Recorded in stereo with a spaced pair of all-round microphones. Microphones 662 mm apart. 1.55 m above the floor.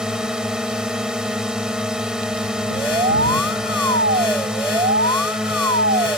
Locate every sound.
0.0 s a drone: centre (ahead or behind)
2.7 s an alarm: 60° right (ahead or behind)